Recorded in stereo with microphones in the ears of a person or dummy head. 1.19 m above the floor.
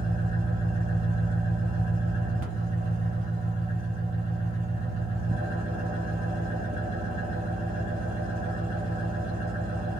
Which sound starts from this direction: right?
An engine running, at 0.0 s.